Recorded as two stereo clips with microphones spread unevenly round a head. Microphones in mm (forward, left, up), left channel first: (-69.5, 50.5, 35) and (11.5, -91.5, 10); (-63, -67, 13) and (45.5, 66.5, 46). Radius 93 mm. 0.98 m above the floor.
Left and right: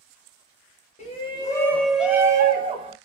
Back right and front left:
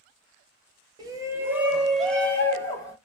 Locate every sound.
1.0 s a shout: 120° left, 0.9 m; by 3.0 s 75° right, 1.1 m